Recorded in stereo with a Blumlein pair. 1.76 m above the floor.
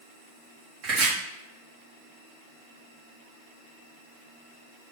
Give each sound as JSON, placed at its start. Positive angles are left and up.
{"t": 0.8, "sound": "chopping", "azimuth_deg": -40, "distance_m": 2.0}